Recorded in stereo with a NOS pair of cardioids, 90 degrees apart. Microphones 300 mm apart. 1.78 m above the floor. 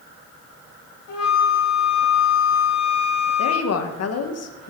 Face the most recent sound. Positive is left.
turn(degrees=60)